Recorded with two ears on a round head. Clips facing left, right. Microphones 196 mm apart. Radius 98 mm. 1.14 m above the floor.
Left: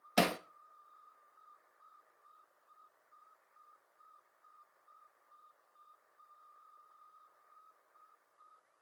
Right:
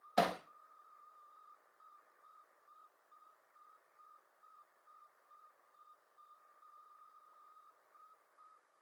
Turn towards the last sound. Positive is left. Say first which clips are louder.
# left 2 dB
turn(degrees=35)  # may be behind; listen again after turning